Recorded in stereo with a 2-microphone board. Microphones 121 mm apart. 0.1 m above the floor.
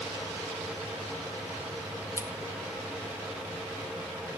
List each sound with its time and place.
2.2 s scissors: 20° right (ahead or behind), 0.9 m